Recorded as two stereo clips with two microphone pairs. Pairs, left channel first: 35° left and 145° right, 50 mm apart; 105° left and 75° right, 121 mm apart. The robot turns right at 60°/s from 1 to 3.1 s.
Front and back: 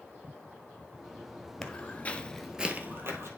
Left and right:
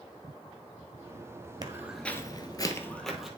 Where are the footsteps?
35° right, 1.1 m; by 3.3 s 165° right, 1.6 m.